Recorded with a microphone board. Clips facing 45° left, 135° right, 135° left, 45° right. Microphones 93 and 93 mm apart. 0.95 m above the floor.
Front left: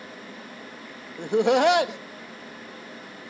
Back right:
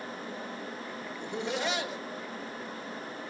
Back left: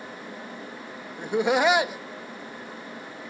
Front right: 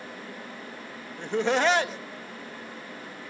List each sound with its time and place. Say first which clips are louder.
1.2 s laughter: front left 14 dB, back left 2 dB; 55° left, 1.0 m